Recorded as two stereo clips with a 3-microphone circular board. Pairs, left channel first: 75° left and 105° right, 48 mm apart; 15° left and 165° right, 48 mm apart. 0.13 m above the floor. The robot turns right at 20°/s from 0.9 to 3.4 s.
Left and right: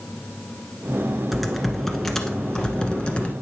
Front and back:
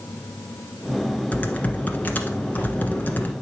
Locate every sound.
1.3 s typing on a keyboard: 20° right, 1.4 m; by 3.3 s 20° left, 1.4 m